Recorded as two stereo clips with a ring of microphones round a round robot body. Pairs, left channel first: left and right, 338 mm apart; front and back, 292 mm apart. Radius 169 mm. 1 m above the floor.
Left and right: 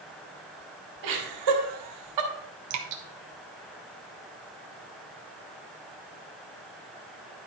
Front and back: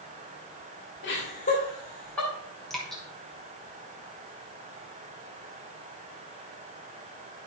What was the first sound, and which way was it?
Laughter, 60° right.